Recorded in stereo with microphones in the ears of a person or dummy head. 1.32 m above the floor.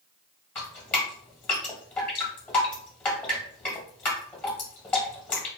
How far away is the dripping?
About 1.2 m.